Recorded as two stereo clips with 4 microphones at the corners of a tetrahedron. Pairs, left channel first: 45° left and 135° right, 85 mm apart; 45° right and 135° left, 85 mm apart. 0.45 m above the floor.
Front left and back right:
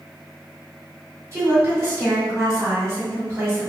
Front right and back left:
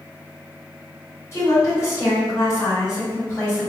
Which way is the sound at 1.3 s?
90° right.